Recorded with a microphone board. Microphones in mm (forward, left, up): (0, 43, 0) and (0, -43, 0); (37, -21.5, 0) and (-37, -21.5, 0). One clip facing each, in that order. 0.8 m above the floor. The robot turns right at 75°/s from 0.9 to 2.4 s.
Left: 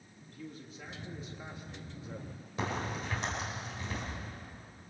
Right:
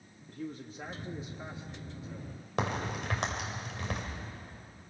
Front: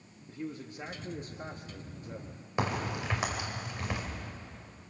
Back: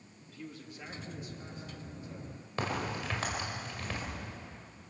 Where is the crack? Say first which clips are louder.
Right 2 dB, front 2 dB; 75° right, 4.5 m.